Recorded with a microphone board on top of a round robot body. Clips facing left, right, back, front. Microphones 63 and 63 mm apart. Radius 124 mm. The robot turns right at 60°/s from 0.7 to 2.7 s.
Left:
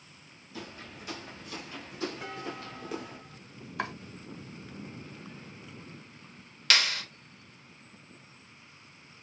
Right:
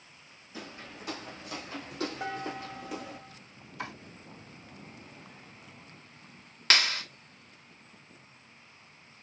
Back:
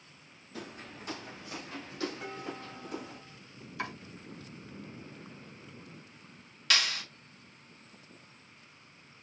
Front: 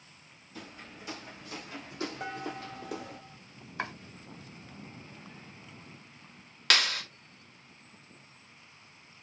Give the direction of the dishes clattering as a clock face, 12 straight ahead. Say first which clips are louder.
Right 3 dB, front 3 dB; 1 o'clock.